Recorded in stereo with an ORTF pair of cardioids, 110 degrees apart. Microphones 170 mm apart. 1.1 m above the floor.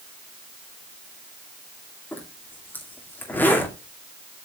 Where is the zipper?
10° left, 2.5 m.